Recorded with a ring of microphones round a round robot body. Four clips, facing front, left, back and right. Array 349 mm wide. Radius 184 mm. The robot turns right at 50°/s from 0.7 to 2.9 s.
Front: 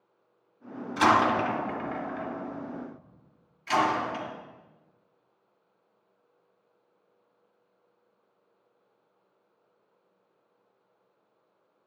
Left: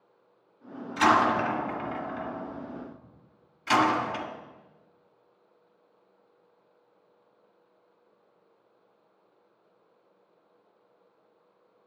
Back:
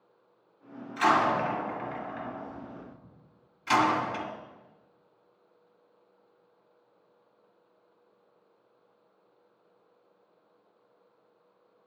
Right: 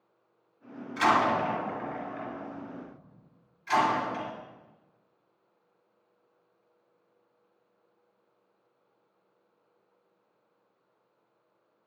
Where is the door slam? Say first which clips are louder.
Left 2 dB, front 2 dB; 20° left, 2.0 m; by 4.3 s 120° left, 2.0 m.